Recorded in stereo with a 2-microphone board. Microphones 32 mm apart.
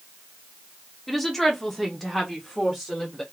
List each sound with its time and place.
1.1 s a woman speaking: 5° left (ahead or behind), 0.8 m; by 3.2 s 10° left (ahead or behind), 1.4 m